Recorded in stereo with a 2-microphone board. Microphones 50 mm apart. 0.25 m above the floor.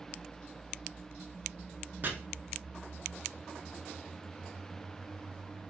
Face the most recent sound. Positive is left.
turn(degrees=-40)  # may be behind; listen again after turning